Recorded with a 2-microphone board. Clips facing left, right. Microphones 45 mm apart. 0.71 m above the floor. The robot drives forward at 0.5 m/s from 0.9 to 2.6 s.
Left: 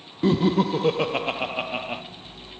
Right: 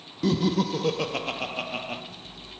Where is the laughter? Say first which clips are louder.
Left 4 dB; 20° left (ahead or behind), 0.8 m; by 2.0 s 15° left (ahead or behind), 1.1 m.